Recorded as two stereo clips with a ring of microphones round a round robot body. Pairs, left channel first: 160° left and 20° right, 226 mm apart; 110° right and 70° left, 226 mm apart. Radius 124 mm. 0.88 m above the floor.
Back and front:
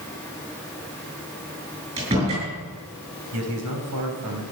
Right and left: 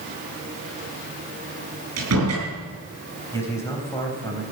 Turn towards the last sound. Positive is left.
turn(degrees=-35)